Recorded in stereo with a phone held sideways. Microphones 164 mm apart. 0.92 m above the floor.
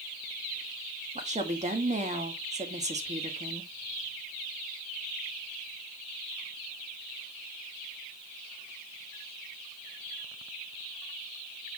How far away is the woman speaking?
About 1.8 m.